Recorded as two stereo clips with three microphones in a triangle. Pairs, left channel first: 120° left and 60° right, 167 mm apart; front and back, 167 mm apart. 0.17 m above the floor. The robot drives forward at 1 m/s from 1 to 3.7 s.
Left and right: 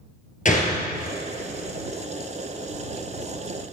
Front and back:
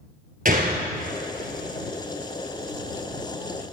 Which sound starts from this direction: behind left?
A gunshot, at 0.5 s.